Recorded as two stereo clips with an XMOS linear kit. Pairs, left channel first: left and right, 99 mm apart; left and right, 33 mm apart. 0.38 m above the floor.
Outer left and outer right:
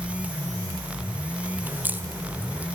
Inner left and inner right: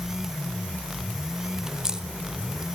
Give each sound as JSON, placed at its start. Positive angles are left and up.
{"t": 1.6, "sound": "a crack", "side_deg": -20, "distance_m": 1.5}